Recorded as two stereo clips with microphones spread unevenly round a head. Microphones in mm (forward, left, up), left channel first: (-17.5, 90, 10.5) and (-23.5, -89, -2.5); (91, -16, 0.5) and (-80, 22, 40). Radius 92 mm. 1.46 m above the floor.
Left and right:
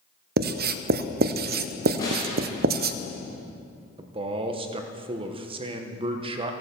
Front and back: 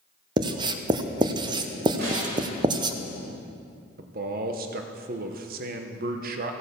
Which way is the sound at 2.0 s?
155° left.